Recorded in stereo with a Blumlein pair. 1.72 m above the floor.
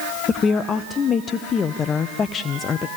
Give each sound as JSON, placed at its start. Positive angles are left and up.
{"t": 0.3, "sound": "a woman speaking", "azimuth_deg": 20, "distance_m": 0.6}